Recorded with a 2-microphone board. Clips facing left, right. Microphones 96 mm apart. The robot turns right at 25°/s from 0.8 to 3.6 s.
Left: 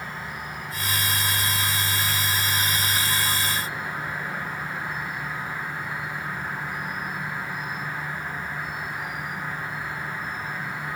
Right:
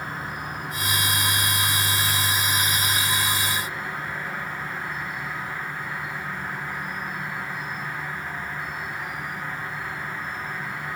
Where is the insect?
55° right, 1.8 m; by 11.0 s 15° left, 1.8 m.